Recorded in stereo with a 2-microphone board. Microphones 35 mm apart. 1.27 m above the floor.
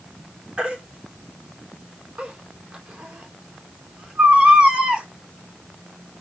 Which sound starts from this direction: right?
A baby crying, at 0.6 s.